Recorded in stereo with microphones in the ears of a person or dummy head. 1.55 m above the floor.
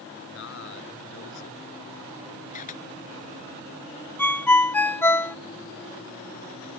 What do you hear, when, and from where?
0.3 s a man speaking: 70° left (ahead or behind)
2.5 s a camera shutter: 45° left (ahead or behind)
4.2 s a ringtone: 15° left (ahead or behind)